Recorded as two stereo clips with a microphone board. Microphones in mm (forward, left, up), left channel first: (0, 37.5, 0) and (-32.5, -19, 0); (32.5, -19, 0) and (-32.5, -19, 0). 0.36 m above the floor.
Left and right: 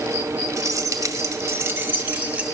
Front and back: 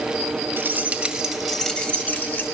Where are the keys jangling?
130° right, 1.3 m; by 2.5 s 55° right, 1.6 m.